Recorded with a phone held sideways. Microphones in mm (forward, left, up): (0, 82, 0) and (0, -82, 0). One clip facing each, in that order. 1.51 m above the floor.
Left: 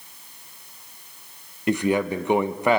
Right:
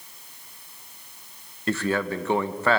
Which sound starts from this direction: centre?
A man speaking, at 1.7 s.